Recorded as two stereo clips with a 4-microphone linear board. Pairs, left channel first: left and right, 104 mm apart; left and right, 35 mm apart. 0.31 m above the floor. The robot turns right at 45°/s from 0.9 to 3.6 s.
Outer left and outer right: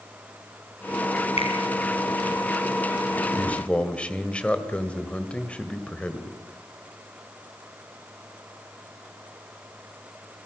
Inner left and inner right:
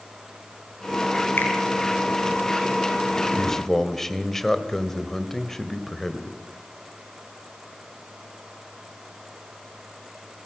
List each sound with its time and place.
1.4 s a finger snap: 70° left (ahead or behind), 5 m; by 1.5 s 60° left (ahead or behind), 5 m
3.3 s a man speaking: 15° left (ahead or behind), 1.6 m; by 6.4 s 10° left (ahead or behind), 1.6 m